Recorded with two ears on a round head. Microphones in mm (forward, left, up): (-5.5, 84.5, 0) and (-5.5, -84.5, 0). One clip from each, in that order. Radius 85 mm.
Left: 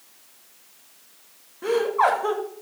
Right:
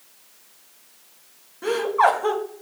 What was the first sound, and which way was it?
Laughter, 15° right (ahead or behind).